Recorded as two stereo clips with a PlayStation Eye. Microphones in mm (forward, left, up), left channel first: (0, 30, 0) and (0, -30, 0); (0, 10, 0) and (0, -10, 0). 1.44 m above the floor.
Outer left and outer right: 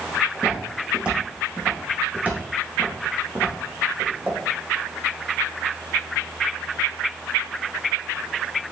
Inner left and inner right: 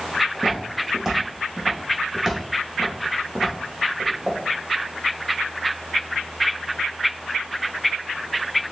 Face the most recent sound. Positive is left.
turn(degrees=-45)  # may be behind; listen again after turning